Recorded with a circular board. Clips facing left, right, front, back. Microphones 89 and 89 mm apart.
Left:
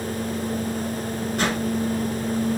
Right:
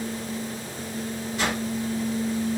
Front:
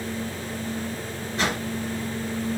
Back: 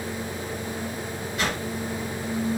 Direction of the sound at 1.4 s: 55° left.